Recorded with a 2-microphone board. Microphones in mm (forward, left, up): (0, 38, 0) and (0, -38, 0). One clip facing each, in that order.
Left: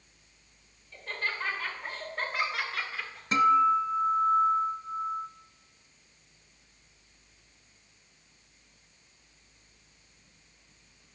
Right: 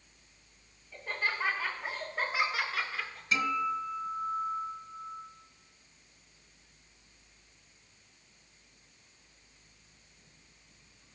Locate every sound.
0.9 s laughter: 10° right (ahead or behind), 2 m; by 3.2 s 5° left (ahead or behind), 1.4 m
3.3 s a guitar: 50° left (ahead or behind), 1.0 m